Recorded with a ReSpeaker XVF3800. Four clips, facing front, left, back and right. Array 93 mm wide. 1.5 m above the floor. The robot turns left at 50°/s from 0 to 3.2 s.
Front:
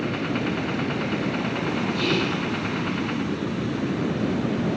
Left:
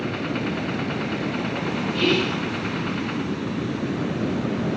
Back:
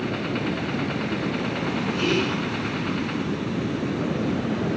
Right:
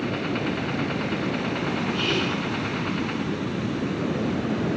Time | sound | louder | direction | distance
1.9 | whispering | left 3 dB, back 3 dB | 115° left | 2.5 m